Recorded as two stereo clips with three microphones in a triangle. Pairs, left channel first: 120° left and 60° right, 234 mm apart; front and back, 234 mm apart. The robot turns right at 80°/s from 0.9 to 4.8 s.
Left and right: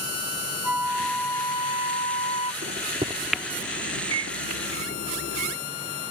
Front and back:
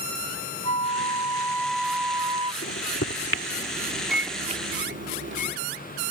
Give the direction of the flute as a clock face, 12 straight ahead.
11 o'clock.